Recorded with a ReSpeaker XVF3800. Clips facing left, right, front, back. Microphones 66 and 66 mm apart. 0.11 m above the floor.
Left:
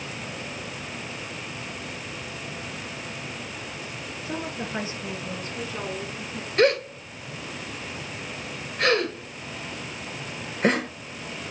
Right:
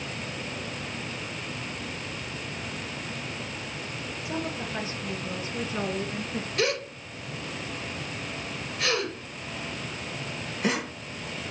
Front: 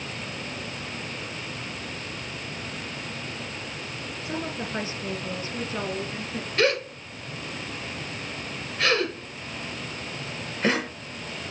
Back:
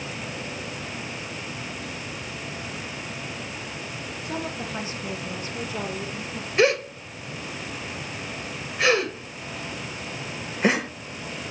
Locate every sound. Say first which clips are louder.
4.2 s a woman speaking: left 1 dB, even; 55° left, 1.7 m; by 6.5 s 50° right, 1.8 m
6.6 s a gasp: left 9 dB, back 3 dB; 110° left, 1.5 m